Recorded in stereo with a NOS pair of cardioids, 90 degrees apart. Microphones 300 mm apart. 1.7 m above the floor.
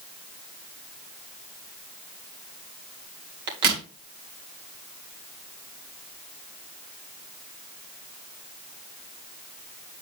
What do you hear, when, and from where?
3.5 s a crack: 65° right, 2.5 m